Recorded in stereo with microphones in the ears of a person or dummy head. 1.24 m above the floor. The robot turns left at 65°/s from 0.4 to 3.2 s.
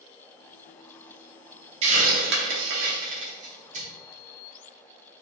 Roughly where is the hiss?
Right.